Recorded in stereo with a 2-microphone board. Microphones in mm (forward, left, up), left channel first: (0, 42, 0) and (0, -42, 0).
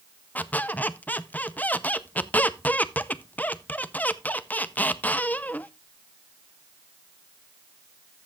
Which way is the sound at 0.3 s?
20° left (ahead or behind).